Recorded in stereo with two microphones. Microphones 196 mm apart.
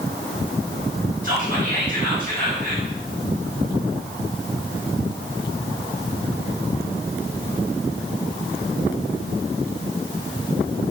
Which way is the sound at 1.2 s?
45° right (ahead or behind).